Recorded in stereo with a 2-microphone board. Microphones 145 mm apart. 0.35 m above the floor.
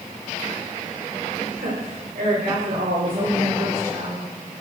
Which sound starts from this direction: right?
A woman speaking, at 1.6 s.